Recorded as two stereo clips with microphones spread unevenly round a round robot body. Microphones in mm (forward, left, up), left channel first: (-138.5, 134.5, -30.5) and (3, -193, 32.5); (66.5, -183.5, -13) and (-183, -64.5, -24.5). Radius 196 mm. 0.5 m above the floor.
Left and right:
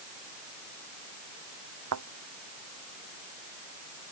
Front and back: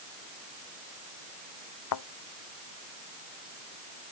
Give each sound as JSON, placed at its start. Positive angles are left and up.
{"t": 1.9, "sound": "a thud", "azimuth_deg": -15}